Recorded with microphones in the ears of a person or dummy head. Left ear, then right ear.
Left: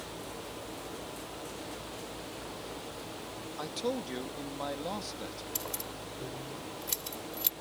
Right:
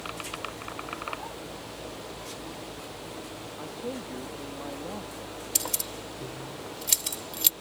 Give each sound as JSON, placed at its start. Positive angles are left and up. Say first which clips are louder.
{"t": 3.6, "sound": "a man speaking", "louder": "left 3 dB", "side_deg": 75}
{"t": 5.5, "sound": "keys jangling", "louder": "right 11 dB", "side_deg": -30}